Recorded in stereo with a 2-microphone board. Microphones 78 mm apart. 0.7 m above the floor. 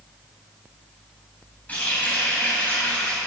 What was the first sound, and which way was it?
A running tap, 20° left (ahead or behind).